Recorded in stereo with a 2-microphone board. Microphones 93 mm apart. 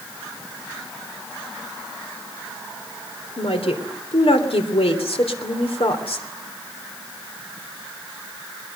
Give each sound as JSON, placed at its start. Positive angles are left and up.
{"t": 3.4, "sound": "a woman speaking", "side_deg": 80, "distance_m": 3.0}